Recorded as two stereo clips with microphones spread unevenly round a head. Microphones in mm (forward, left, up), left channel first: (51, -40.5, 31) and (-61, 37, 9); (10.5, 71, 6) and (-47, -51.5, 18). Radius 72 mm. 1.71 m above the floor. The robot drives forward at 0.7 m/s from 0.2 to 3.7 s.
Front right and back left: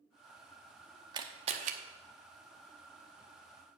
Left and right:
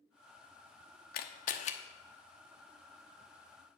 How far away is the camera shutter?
About 0.9 m.